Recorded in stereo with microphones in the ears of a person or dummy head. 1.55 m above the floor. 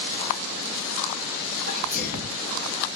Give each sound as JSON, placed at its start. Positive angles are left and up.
{"t": 1.7, "sound": "a sneeze", "side_deg": -40, "distance_m": 2.0}